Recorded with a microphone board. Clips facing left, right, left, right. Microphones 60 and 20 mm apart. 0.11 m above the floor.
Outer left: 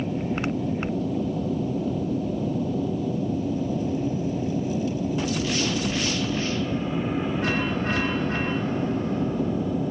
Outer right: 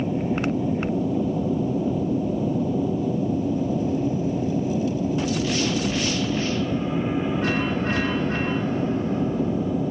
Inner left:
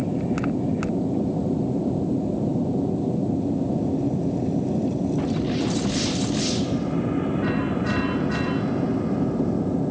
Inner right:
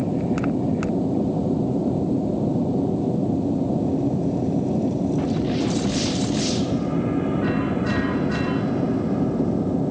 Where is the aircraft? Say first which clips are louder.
Outer right 3 dB, inner right 2 dB; 10° right (ahead or behind); by 9.9 s 5° right (ahead or behind).